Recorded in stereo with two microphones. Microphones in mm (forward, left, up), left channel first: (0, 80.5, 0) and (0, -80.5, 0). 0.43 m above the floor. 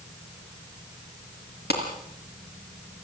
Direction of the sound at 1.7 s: 80° left.